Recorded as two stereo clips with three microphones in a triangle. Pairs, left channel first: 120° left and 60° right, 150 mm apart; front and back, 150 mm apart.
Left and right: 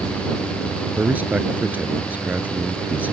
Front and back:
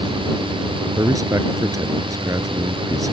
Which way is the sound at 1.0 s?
130° right.